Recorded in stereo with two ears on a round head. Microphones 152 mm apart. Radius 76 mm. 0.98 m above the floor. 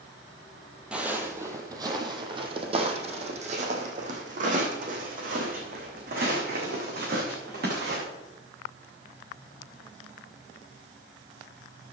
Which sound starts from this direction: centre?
Footsteps, at 0.9 s.